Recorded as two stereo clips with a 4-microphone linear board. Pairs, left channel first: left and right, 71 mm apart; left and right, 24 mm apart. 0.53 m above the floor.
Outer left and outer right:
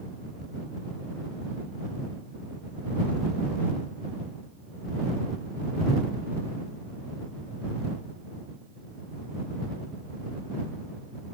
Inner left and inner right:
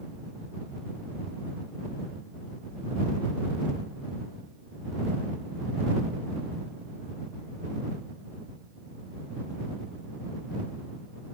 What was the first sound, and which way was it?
Only background noise.